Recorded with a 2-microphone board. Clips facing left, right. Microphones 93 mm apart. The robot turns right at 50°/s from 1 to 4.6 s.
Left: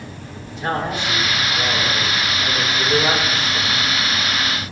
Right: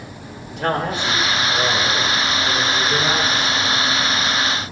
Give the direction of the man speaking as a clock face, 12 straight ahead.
3 o'clock.